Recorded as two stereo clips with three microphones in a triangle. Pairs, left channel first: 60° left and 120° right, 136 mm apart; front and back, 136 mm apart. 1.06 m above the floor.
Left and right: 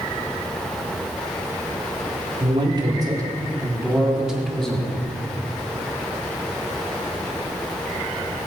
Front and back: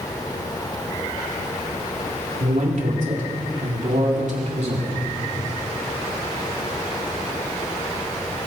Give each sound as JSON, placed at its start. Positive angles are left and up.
{"t": 2.4, "sound": "a man speaking", "azimuth_deg": -170, "distance_m": 3.5}